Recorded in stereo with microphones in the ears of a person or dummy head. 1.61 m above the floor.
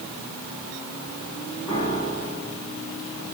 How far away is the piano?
About 6 m.